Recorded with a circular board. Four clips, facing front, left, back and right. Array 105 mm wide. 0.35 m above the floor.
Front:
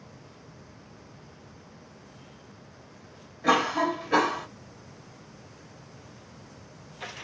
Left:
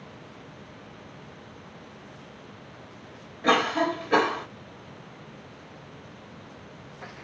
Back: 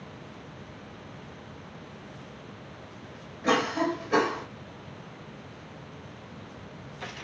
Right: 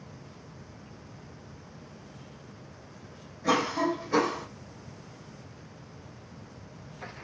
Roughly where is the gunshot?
No gunshot in this recording.